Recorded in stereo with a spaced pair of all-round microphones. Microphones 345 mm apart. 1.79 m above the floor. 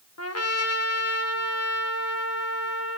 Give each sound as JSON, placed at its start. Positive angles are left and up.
{"t": 0.2, "sound": "a trumpet", "side_deg": 45, "distance_m": 1.0}